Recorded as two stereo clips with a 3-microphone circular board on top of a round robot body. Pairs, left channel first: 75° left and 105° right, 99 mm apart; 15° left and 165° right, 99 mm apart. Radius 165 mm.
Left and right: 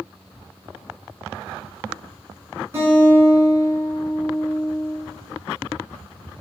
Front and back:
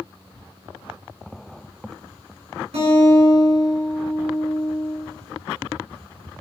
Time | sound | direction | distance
2.7 | a guitar | 175° right | 4 m